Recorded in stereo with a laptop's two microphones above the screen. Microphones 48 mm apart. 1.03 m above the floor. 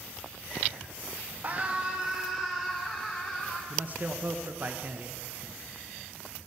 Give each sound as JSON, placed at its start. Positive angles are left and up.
{"t": 1.4, "sound": "a scream", "side_deg": -40, "distance_m": 1.0}
{"t": 3.7, "sound": "a man speaking", "side_deg": -40, "distance_m": 0.8}